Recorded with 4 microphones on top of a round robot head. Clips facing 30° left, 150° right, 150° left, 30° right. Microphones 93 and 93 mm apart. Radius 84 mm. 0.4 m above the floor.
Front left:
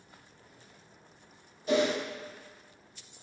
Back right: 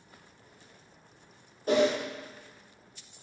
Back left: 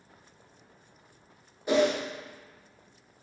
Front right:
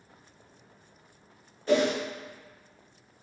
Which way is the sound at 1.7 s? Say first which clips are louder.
Back right 2 dB, even; 140° right.